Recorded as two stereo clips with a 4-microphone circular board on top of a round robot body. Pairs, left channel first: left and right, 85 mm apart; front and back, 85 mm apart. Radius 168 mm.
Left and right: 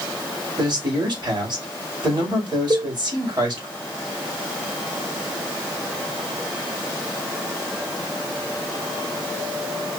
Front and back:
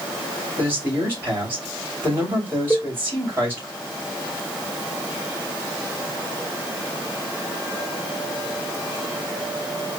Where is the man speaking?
115° right, 2.5 m.